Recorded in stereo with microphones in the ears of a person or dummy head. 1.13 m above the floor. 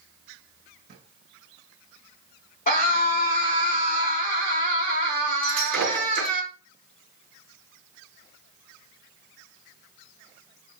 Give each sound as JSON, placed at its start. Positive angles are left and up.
{"t": 0.9, "sound": "a drawer", "side_deg": -45, "distance_m": 4.0}
{"t": 2.7, "sound": "a scream", "side_deg": 45, "distance_m": 3.0}
{"t": 5.4, "sound": "breaking glass", "side_deg": 5, "distance_m": 6.5}